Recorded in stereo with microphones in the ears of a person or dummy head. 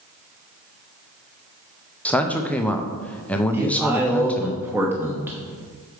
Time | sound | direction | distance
2.0 | a man speaking | 5° left (ahead or behind) | 0.6 m
3.5 | a man speaking | 10° right (ahead or behind) | 1.0 m